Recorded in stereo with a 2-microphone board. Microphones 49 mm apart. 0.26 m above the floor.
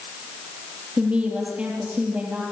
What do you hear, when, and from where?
1.0 s a woman speaking: 25° right (ahead or behind), 6 m